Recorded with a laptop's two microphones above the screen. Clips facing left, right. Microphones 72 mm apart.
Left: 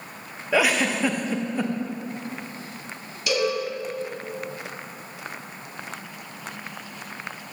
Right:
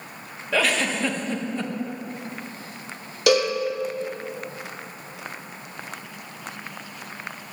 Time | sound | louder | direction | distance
0.5 | a giggle | left 2 dB | 15° left (ahead or behind) | 0.6 m
3.3 | a cowbell | right 5 dB | 75° right (ahead or behind) | 1.6 m